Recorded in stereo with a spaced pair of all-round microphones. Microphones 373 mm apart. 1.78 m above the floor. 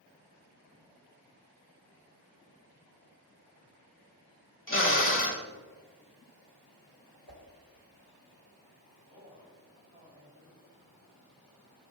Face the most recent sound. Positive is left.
turn(degrees=-15)  # may be behind; listen again after turning